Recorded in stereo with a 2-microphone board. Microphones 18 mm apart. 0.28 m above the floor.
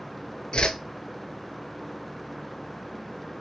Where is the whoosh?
55° left (ahead or behind), 0.6 m.